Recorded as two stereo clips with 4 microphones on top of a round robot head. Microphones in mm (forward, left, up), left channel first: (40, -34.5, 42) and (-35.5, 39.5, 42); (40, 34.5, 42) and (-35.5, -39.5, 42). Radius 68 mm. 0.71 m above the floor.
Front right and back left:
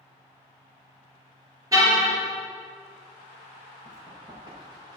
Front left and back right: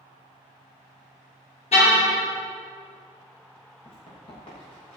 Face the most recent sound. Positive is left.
turn(degrees=80)